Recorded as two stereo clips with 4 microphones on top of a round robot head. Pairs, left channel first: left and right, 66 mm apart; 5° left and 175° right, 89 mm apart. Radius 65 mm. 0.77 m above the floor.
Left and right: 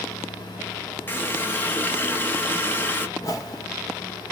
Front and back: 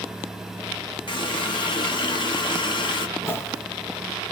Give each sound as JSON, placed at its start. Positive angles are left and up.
{"t": 1.1, "sound": "a running tap", "azimuth_deg": 30, "distance_m": 0.8}
{"t": 3.2, "sound": "a whoosh", "azimuth_deg": 60, "distance_m": 1.2}